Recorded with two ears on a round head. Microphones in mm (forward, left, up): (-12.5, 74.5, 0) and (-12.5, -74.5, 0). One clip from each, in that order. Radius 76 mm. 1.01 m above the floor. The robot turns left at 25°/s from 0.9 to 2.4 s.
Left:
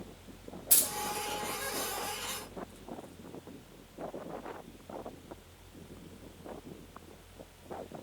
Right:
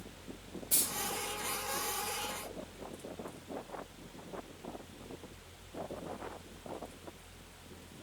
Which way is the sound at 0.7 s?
70° left (ahead or behind).